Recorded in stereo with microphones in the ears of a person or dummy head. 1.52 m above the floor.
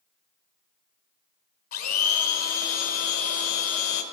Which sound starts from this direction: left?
A blender, at 1.7 s.